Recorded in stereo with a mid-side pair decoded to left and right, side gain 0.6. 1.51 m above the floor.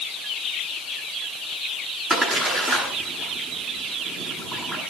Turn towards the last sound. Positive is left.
turn(degrees=-30)